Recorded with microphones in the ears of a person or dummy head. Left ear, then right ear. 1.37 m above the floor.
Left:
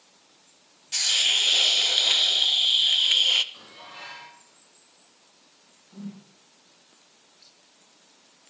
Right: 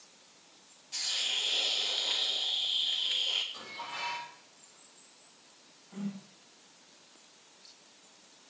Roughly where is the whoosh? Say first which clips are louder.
Right 1 dB; right.